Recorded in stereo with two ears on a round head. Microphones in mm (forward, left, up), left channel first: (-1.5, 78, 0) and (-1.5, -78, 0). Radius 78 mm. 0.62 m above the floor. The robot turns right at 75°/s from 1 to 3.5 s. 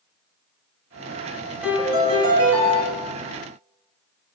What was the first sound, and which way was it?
A piano, 175° right.